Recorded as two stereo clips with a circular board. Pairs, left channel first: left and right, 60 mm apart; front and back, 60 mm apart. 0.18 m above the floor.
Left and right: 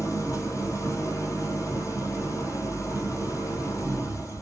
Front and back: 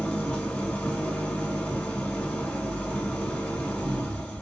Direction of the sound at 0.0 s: 75° left.